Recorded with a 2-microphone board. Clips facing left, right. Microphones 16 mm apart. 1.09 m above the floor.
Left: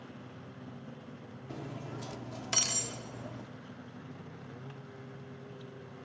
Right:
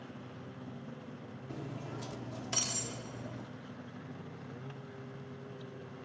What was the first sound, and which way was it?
Cutlery clinking, 40° left (ahead or behind).